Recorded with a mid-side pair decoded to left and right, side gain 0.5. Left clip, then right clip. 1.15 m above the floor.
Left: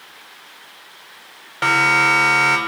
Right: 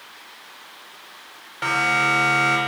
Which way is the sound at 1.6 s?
40° left.